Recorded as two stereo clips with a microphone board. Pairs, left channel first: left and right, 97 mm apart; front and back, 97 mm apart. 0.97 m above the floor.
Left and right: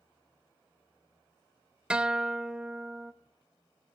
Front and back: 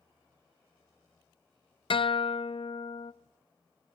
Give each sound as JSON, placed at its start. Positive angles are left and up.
{"t": 1.9, "sound": "a guitar", "azimuth_deg": -10, "distance_m": 0.5}